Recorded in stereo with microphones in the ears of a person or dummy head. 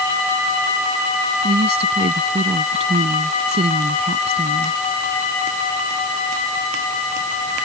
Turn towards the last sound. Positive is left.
turn(degrees=-30)  # may be behind; listen again after turning